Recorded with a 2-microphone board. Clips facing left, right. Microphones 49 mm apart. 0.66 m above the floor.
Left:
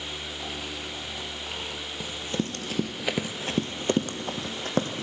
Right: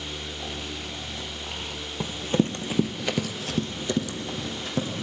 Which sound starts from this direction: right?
Running footsteps, at 2.0 s.